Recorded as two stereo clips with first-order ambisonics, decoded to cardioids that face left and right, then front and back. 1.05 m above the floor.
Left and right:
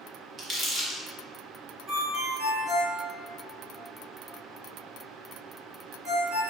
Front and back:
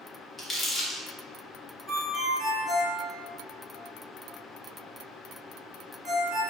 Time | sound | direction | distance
0.4 | crumpling | 60° right | 0.6 m
1.9 | a ringtone | 85° right | 1.7 m